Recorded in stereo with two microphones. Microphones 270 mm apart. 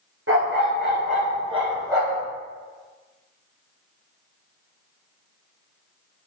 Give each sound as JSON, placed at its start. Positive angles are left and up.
{"t": 0.3, "sound": "a dog barking", "side_deg": -50, "distance_m": 1.2}